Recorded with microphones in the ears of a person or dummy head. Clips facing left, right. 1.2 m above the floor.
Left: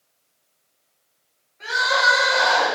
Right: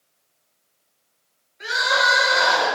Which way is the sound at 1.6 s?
15° right (ahead or behind).